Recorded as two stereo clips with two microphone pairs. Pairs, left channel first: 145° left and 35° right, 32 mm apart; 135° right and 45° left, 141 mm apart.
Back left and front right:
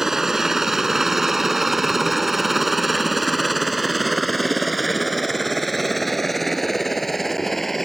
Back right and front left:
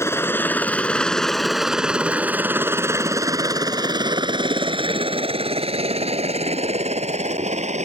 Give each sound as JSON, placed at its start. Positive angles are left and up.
{"t": 0.0, "sound": "a helicopter", "azimuth_deg": -95}